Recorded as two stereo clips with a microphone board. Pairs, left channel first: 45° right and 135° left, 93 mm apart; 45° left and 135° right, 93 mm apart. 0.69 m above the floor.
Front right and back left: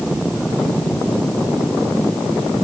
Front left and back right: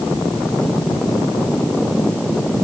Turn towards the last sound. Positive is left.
No sound to turn to.